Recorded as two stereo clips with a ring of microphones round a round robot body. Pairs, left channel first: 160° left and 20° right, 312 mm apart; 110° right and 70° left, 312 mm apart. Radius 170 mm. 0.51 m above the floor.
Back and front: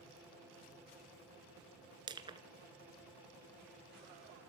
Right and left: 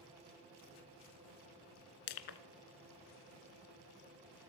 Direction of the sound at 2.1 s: 100° right.